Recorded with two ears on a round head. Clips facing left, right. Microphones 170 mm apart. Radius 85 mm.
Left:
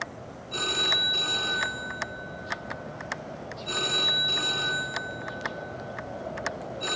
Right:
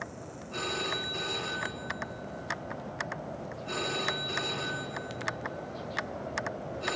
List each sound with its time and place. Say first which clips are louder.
0.5 s a phone ringing: left 2 dB; 50° left (ahead or behind), 3.5 m